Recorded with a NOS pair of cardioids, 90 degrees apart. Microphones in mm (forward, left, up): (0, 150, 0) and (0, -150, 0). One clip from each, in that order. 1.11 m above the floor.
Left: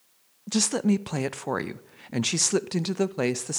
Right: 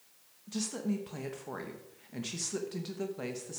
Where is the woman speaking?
65° left, 0.6 m.